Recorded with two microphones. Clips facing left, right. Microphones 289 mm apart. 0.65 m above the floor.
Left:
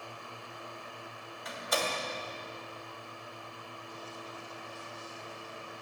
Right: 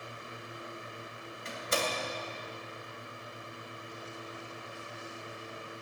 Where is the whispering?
I don't hear whispering.